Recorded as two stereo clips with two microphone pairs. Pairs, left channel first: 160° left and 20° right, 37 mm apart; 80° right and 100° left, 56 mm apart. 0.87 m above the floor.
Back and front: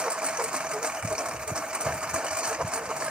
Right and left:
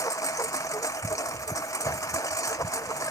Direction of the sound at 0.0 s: 85° right.